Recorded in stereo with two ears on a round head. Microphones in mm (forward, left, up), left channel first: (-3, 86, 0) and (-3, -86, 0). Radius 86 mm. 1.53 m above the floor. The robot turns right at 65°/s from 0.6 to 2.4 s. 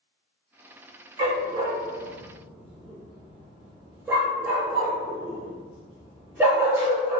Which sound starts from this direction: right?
A dog barking, at 1.2 s.